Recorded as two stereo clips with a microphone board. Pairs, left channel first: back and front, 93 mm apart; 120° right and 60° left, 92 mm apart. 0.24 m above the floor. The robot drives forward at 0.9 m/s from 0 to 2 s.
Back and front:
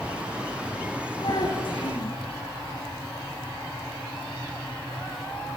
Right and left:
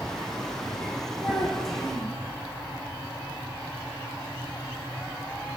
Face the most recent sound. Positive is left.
turn(degrees=155)